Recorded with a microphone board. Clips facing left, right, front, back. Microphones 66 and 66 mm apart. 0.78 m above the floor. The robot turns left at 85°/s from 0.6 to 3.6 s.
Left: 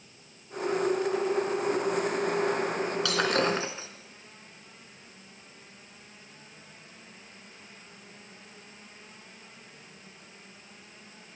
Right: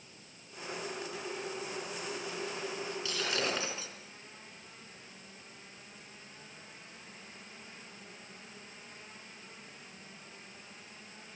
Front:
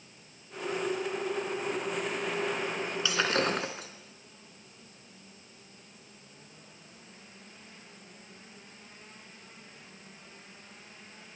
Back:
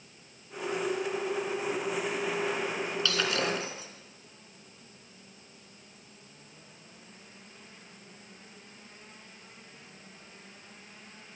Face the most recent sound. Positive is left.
turn(degrees=30)